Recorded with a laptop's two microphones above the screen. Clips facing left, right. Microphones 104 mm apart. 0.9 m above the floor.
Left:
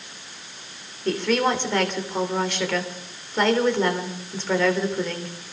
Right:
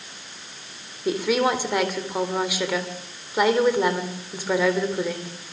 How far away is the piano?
No piano in this recording.